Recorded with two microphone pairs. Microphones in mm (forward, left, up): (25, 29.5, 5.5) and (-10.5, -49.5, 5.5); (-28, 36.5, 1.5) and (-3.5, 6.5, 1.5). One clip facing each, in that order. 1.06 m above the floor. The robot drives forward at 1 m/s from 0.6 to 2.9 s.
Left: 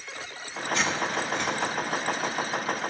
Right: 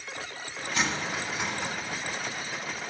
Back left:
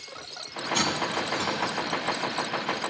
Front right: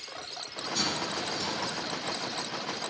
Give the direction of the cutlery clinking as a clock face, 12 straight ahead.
7 o'clock.